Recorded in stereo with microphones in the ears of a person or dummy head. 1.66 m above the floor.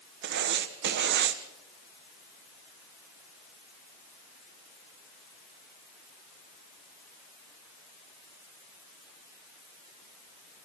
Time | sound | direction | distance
0.2 | writing | 60° right (ahead or behind) | 1.3 m